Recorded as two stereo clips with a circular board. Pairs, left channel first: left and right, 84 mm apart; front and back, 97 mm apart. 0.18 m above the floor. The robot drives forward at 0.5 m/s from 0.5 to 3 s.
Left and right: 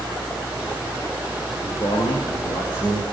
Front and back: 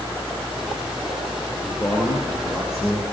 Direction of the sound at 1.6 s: 60° left.